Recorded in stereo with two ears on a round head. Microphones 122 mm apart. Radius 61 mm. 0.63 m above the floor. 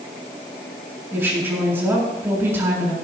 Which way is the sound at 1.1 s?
15° right (ahead or behind).